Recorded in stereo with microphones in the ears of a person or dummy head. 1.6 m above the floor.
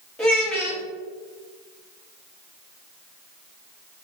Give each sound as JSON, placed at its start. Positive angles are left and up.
{"t": 0.2, "sound": "a child speaking", "side_deg": 5, "distance_m": 1.4}